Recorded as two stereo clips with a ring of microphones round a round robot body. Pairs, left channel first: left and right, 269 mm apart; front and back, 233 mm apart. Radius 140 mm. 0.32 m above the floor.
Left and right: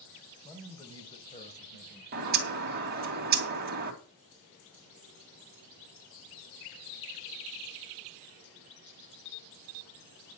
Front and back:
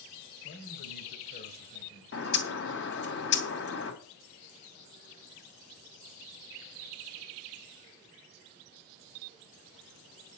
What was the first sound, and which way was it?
A man speaking, 10° left.